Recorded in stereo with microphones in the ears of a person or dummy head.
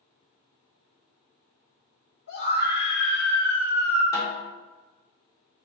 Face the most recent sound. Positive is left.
turn(degrees=30)  # may be behind; listen again after turning